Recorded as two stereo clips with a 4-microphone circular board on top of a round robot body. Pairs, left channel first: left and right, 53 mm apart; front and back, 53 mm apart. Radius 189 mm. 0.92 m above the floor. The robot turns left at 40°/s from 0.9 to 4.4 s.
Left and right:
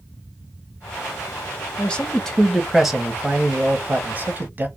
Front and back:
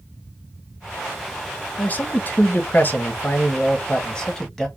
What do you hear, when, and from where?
1.8 s a man speaking: 35° left, 1.0 m; by 4.7 s 70° right, 1.0 m